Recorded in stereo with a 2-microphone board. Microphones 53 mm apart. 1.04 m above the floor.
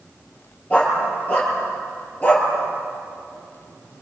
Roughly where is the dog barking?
Left.